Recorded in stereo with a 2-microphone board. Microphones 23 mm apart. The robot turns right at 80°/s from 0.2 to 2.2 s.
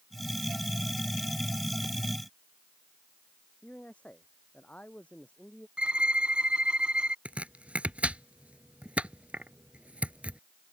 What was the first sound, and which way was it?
A man speaking, 70° left (ahead or behind).